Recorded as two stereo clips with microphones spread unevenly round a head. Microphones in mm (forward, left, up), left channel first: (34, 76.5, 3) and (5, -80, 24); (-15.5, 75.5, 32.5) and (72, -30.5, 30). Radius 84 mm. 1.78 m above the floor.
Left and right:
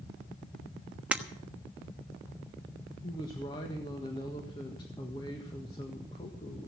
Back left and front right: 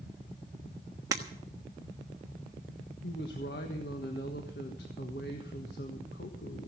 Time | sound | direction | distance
1.1 | breaking glass | 65° right | 1.2 m
3.0 | a woman speaking | 145° left | 1.6 m